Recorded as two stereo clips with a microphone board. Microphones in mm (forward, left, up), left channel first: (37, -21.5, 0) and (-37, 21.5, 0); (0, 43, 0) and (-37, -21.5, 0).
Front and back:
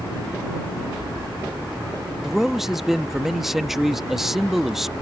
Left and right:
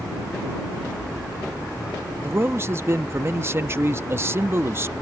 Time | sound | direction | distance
2.2 | a man speaking | 125° right | ?